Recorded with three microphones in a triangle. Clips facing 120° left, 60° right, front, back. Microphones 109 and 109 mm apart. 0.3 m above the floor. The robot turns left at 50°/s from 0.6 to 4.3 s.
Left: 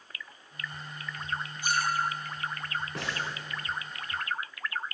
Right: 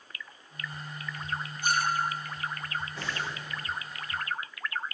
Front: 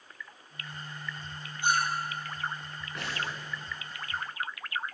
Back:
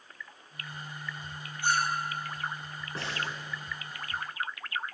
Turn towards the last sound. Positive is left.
turn(degrees=55)